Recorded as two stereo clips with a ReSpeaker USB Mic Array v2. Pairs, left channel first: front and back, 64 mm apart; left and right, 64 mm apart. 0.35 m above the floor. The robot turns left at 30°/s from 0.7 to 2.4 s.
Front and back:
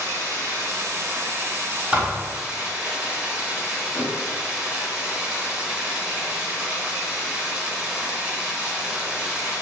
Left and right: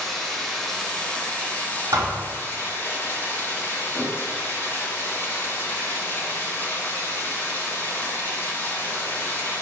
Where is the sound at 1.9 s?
110° right, 1.2 m; by 2.3 s 120° right, 1.2 m.